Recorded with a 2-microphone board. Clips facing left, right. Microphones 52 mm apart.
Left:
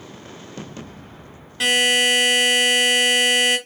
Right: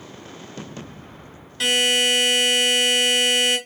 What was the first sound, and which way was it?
A buzzer, 20° left (ahead or behind).